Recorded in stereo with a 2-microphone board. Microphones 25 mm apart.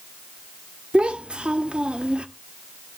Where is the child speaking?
40° right (ahead or behind), 0.8 m.